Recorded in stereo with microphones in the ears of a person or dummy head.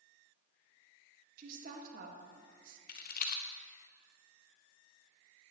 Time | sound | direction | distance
1.4 | a woman speaking | 50° right (ahead or behind) | 1.5 m
2.9 | a rattle | 50° left (ahead or behind) | 0.6 m